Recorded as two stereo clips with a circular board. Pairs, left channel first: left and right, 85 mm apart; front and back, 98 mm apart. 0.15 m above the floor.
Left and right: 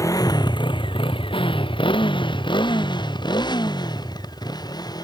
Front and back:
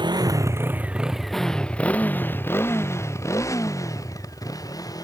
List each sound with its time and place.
0.0 s a motorcycle: 140° left; by 5.0 s 50° left